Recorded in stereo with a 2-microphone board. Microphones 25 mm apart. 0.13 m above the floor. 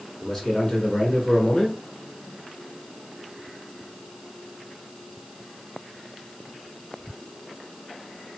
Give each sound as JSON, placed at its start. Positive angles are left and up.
{"t": 0.2, "sound": "a man speaking", "side_deg": 25, "distance_m": 1.7}